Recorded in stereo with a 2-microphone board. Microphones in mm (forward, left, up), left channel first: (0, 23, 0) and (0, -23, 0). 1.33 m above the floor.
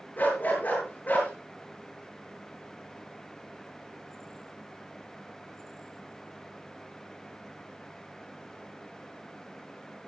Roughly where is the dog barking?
Left.